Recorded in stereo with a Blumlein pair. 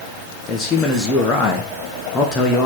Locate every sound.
0.5 s a man speaking: 15° left, 0.8 m